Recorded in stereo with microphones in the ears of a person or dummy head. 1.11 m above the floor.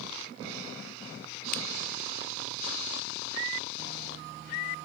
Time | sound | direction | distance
1.5 | a finger snap | 50° left (ahead or behind) | ?